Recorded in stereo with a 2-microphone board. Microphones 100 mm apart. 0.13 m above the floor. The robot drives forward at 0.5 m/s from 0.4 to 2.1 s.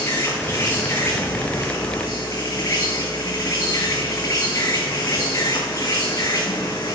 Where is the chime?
No chime in this recording.